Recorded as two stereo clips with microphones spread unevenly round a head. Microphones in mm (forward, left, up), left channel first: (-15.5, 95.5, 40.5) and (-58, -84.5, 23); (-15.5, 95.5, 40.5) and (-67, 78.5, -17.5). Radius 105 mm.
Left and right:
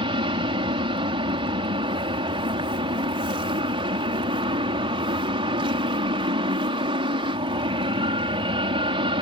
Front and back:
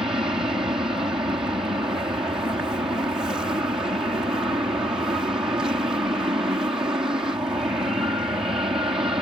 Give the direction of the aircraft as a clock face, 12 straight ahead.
5 o'clock.